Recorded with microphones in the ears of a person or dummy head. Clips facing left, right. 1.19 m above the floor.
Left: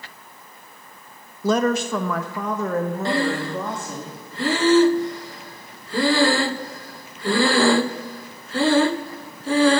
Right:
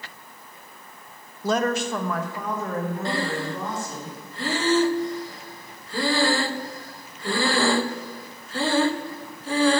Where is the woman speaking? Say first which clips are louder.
Left 3 dB; 85° left, 0.6 m; by 4.0 s 45° left (ahead or behind), 2 m.